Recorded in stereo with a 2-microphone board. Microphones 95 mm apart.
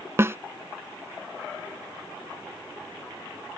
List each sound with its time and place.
0.2 s a snare drum: 25° right (ahead or behind)